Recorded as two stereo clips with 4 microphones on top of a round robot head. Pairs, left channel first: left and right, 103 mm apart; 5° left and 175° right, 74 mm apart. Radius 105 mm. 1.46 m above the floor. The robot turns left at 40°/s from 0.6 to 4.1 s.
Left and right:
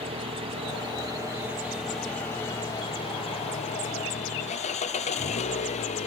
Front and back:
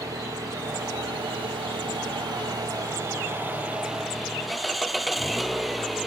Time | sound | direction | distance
0.0 | an engine running | 125° right | ?